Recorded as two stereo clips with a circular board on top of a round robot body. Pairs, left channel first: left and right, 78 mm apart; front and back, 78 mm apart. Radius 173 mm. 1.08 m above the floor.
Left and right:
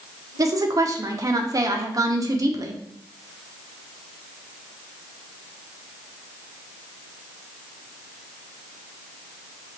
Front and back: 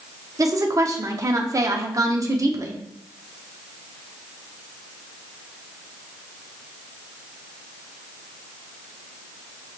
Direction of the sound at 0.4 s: 130° right.